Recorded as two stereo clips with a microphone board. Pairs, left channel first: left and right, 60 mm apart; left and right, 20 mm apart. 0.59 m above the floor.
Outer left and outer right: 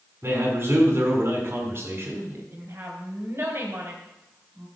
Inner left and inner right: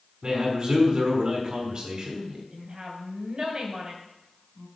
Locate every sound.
0.2 s a man speaking: 40° right (ahead or behind), 5 m
2.5 s a woman speaking: 50° right (ahead or behind), 3.5 m